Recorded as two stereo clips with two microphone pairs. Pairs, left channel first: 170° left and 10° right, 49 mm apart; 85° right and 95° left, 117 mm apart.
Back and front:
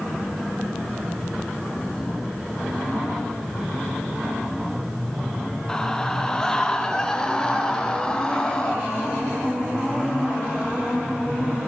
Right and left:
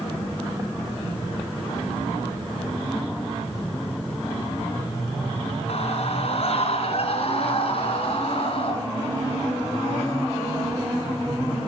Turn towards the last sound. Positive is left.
turn(degrees=-120)